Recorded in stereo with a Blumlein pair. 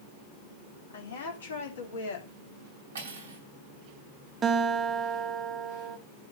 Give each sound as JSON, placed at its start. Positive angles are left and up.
{"t": 0.9, "sound": "a woman speaking", "azimuth_deg": 65, "distance_m": 3.5}
{"t": 3.0, "sound": "cutlery clinking", "azimuth_deg": -70, "distance_m": 4.5}
{"t": 4.4, "sound": "a guitar", "azimuth_deg": -20, "distance_m": 1.6}